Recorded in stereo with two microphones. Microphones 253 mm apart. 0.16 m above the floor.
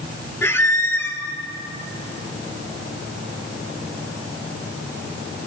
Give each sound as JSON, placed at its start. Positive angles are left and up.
{"t": 0.4, "sound": "a squeak", "side_deg": 10, "distance_m": 0.7}